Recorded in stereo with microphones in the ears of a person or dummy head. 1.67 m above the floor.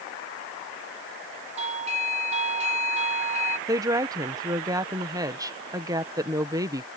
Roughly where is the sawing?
I don't hear sawing.